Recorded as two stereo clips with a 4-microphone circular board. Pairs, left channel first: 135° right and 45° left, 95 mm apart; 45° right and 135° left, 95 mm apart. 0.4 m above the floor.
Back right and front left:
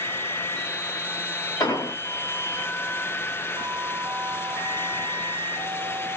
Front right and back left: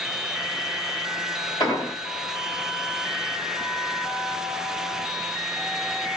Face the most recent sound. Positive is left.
turn(degrees=-85)